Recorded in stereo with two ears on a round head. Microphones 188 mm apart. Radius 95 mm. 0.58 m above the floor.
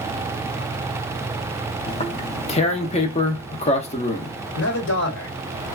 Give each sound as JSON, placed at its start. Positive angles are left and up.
{"t": 1.9, "sound": "tearing paper", "side_deg": 30, "distance_m": 0.6}
{"t": 4.5, "sound": "a man speaking", "side_deg": 55, "distance_m": 1.5}